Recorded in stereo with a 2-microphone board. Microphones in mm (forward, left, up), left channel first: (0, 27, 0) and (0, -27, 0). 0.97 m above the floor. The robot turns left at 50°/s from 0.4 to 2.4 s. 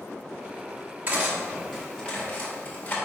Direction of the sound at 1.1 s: 35° right (ahead or behind).